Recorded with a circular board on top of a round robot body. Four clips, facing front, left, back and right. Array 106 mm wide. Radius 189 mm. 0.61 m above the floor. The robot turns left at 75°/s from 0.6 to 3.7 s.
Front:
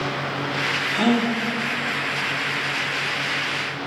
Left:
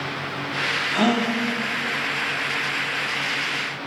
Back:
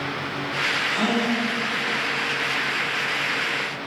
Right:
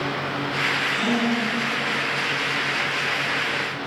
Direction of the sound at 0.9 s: 95° left.